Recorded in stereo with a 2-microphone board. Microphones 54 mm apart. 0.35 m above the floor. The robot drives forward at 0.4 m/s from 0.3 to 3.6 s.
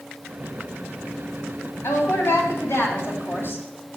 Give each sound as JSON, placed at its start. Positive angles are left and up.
{"t": 1.8, "sound": "a woman speaking", "side_deg": 60, "distance_m": 2.0}